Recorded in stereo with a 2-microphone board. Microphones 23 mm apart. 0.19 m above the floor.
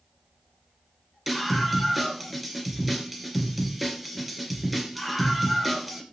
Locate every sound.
1.3 s a scream: 5° right (ahead or behind), 3 m